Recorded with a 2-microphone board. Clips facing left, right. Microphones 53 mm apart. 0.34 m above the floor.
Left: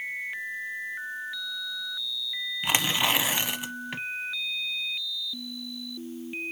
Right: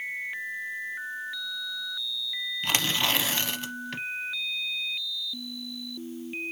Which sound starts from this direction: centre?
Tearing paper, at 2.6 s.